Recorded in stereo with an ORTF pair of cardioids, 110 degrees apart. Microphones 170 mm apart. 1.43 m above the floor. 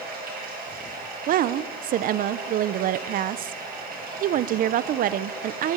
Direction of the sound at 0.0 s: 65° right.